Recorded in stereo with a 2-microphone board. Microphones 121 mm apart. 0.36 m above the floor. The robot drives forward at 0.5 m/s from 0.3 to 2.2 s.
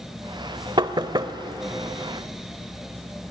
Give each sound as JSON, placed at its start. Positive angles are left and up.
{"t": 0.8, "sound": "knocking", "side_deg": -40, "distance_m": 0.9}